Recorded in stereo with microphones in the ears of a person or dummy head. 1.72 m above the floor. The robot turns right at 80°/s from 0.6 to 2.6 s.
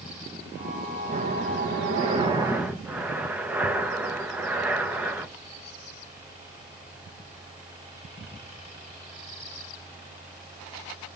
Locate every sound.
1.0 s breathing: 140° right, 1.1 m; by 5.3 s 15° right, 1.1 m